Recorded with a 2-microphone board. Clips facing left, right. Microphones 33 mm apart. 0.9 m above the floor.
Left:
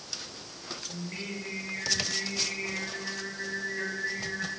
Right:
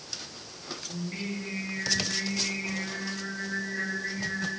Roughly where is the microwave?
No microwave in this recording.